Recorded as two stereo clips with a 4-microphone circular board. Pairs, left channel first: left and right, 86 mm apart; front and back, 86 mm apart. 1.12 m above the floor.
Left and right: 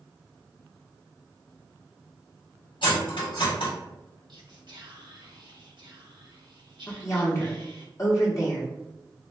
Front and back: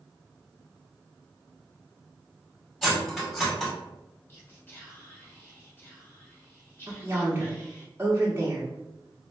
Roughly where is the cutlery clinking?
Left.